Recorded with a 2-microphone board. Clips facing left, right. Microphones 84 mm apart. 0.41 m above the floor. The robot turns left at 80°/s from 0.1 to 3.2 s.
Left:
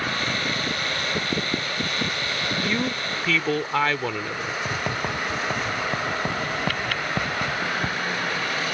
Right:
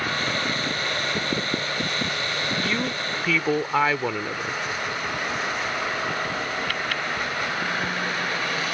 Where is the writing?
55° left (ahead or behind).